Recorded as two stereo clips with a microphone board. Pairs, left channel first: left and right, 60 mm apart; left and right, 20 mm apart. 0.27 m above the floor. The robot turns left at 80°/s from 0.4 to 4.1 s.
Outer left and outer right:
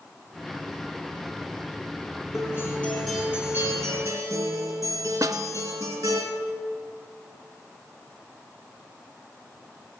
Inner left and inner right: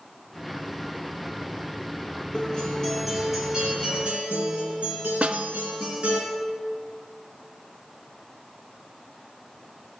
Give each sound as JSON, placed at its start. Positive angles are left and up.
{"t": 2.3, "sound": "a guitar", "azimuth_deg": 60, "distance_m": 3.0}
{"t": 5.2, "sound": "a snare drum", "side_deg": -70, "distance_m": 0.5}